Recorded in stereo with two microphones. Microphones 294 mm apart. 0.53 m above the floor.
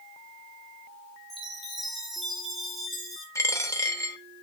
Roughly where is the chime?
Centre.